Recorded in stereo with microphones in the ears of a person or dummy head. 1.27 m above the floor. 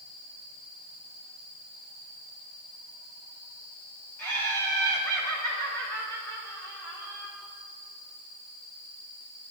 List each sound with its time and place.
4.2 s laughter: 10° left (ahead or behind), 2 m